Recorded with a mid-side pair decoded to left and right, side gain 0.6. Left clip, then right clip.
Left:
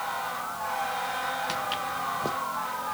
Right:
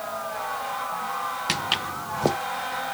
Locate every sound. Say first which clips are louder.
1.5 s footsteps: right 4 dB; 45° right